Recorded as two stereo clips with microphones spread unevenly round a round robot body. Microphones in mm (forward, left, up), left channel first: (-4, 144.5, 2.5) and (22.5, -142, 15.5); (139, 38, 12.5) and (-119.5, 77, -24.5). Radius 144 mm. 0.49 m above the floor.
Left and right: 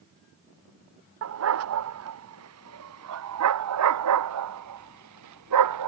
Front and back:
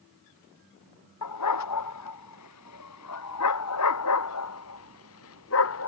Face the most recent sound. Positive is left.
turn(degrees=-55)